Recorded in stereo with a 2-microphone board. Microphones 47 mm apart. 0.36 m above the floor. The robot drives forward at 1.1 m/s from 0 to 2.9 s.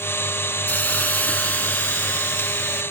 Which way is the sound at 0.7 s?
35° left (ahead or behind).